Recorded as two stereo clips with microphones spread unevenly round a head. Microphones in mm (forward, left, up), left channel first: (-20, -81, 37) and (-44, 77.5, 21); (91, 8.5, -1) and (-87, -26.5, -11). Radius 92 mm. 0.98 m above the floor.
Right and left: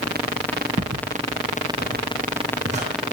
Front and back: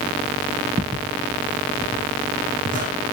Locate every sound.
0.8 s footsteps: 135° left, 2.5 m; by 2.9 s 145° left, 4 m